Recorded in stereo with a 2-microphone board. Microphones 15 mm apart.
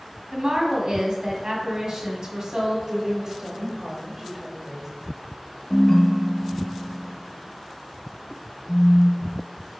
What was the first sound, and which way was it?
A woman speaking, 40° right (ahead or behind).